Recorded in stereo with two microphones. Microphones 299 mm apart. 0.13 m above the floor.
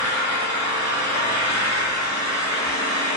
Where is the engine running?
35° left (ahead or behind), 1.0 m.